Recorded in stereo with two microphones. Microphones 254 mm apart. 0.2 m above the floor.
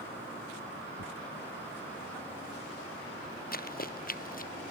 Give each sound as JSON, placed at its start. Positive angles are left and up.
{"t": 1.0, "sound": "tearing paper", "side_deg": 60}
{"t": 3.5, "sound": "running footsteps", "side_deg": 35}